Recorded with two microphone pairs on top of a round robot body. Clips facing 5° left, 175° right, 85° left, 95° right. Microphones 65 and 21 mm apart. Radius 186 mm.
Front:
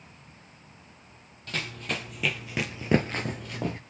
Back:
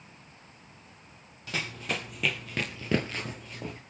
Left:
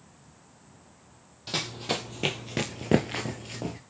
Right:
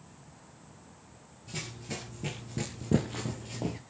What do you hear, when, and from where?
1.5 s running footsteps: 100° left, 1.3 m; by 3.8 s 20° right, 0.6 m